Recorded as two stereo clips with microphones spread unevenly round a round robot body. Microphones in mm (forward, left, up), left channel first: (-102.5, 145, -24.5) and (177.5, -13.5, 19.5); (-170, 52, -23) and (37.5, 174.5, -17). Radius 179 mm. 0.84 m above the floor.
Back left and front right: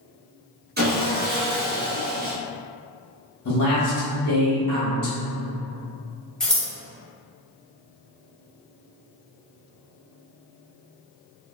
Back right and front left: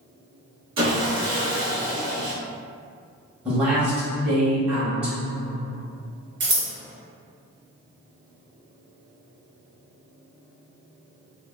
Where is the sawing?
30° left, 0.9 m.